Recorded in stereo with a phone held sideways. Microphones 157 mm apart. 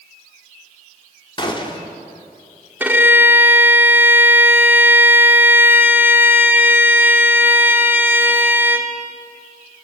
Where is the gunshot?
35° left (ahead or behind), 2.5 m.